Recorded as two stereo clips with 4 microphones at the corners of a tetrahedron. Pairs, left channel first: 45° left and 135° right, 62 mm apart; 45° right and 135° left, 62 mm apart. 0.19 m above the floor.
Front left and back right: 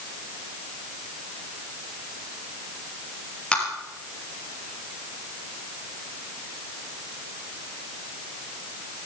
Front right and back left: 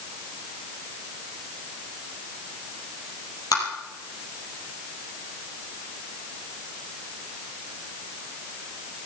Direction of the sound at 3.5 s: 30° right.